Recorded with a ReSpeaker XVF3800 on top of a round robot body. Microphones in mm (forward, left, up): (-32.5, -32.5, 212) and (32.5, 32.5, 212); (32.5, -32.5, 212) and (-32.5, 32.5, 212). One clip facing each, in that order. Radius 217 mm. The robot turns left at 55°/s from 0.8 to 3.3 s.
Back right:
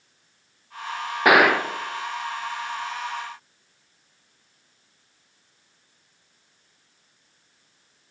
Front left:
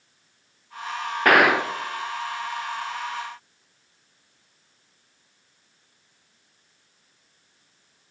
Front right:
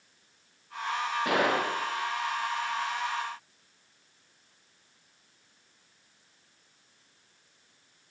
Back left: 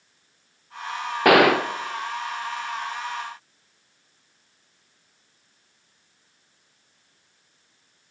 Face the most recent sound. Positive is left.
turn(degrees=30)